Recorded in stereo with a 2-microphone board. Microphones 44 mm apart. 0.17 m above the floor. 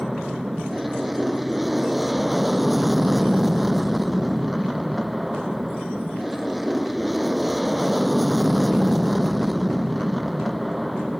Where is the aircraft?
Centre (ahead or behind).